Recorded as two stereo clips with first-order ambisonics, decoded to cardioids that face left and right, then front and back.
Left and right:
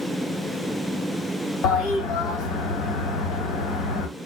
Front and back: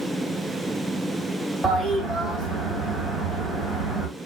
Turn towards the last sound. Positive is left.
turn(degrees=90)